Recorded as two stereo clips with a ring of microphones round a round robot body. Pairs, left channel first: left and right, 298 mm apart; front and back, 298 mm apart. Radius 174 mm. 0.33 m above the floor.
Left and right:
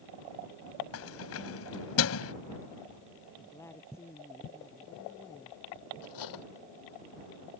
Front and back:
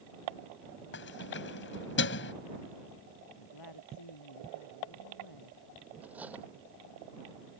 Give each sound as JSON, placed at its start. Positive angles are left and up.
{"t": 0.9, "sound": "keys jangling", "azimuth_deg": 50}
{"t": 3.4, "sound": "a woman speaking", "azimuth_deg": 10}
{"t": 6.0, "sound": "cutlery clinking", "azimuth_deg": 95}